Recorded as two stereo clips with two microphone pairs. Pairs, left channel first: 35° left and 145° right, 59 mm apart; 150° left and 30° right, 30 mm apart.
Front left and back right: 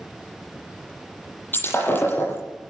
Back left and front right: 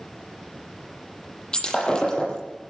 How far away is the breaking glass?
About 9 m.